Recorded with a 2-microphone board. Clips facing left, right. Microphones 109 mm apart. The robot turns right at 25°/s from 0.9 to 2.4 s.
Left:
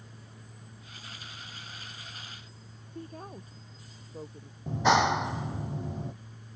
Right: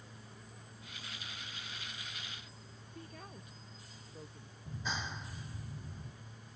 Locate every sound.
3.0 s a woman speaking: 35° left (ahead or behind)
4.7 s a clap: 80° left